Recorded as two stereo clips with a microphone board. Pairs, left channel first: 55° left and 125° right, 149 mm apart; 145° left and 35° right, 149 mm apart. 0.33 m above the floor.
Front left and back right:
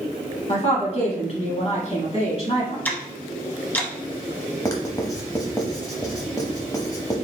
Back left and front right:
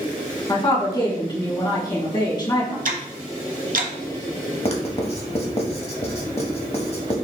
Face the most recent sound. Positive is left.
turn(degrees=115)